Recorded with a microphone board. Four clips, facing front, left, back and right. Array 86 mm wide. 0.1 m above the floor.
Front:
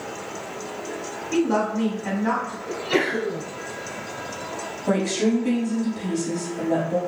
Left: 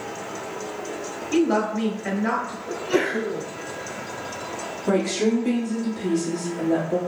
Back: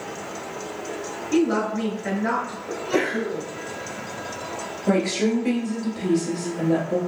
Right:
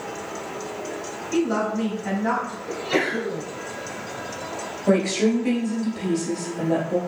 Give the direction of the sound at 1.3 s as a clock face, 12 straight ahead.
8 o'clock.